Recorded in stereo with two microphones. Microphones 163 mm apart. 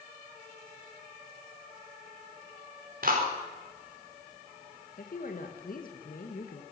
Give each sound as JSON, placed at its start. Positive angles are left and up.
{"t": 3.0, "sound": "a clap", "side_deg": -60, "distance_m": 4.5}
{"t": 5.0, "sound": "a woman speaking", "side_deg": 60, "distance_m": 2.0}